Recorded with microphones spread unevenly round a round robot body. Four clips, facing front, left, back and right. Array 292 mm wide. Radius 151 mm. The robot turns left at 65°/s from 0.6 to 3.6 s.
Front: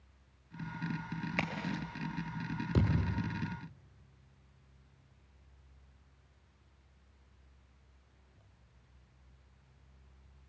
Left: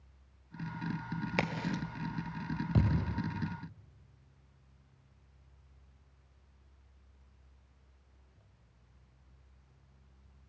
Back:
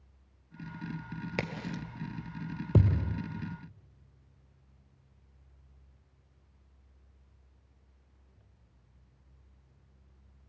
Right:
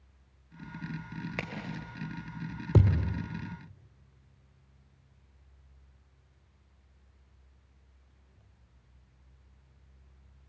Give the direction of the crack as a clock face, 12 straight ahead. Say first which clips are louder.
Left 7 dB, back 1 dB; 6 o'clock.